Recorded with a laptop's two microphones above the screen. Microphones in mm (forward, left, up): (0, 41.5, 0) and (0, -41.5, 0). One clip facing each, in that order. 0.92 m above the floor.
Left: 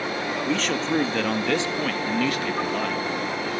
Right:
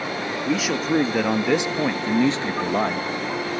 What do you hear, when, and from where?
0.5 s a man speaking: 5° right (ahead or behind), 2 m; by 3.1 s 35° right (ahead or behind), 1.3 m